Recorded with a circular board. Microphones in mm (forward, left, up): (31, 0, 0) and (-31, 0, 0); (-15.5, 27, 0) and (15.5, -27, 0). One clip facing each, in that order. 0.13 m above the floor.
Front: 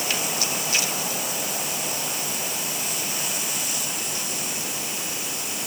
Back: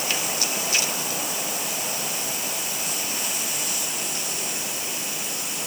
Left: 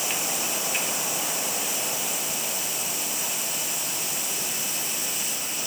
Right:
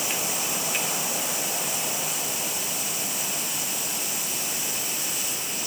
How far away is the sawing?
I don't hear sawing.